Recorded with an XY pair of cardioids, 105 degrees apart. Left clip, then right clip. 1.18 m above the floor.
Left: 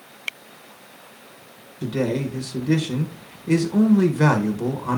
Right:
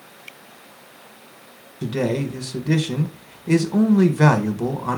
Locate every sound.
1.8 s a man speaking: 25° right, 1.0 m